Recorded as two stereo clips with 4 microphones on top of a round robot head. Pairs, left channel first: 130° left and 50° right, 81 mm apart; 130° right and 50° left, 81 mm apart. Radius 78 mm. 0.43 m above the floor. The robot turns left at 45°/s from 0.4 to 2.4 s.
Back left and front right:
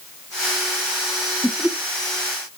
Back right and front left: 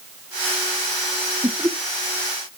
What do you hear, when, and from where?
1.4 s laughter: 40° left, 1.1 m; by 1.8 s 25° left, 1.1 m